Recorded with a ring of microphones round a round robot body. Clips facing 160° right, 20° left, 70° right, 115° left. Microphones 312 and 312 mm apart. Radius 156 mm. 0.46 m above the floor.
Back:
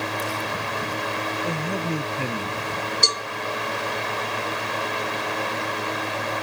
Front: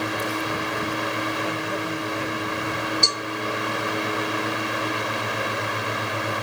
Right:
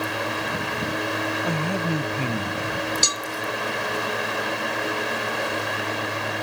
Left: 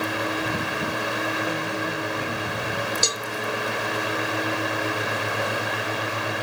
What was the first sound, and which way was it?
A man speaking, 95° right.